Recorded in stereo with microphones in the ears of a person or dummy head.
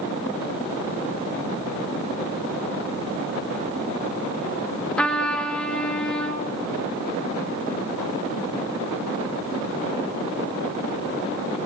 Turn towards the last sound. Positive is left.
turn(degrees=10)  # may be behind; listen again after turning